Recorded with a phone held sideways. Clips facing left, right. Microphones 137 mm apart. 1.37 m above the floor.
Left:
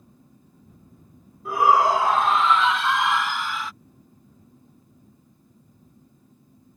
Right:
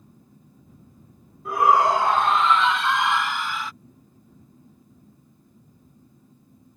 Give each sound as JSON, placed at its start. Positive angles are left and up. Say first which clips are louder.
{"t": 1.4, "sound": "a shout", "louder": "even", "side_deg": 5}